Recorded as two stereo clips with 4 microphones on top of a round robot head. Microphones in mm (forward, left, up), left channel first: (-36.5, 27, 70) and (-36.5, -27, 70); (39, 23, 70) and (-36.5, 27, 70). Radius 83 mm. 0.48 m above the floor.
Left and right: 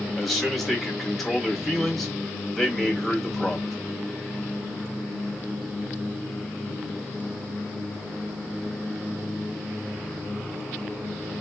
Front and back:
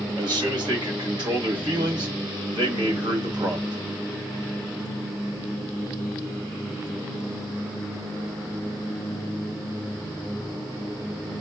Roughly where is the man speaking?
Behind.